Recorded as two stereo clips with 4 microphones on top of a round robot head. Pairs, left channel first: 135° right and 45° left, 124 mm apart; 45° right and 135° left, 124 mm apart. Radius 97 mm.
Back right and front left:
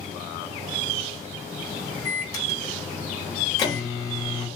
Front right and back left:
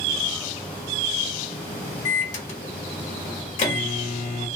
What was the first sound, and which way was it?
A microwave, 70° right.